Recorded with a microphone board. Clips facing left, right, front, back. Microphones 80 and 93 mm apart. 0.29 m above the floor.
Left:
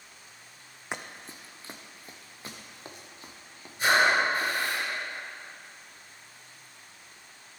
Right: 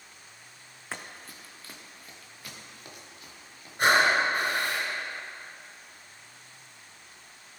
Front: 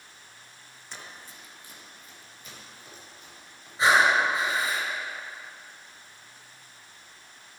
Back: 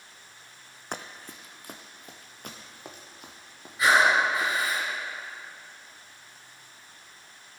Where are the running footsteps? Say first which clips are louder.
Left 2 dB, back 6 dB; 160° left, 0.7 m; by 4.5 s 150° left, 2.5 m.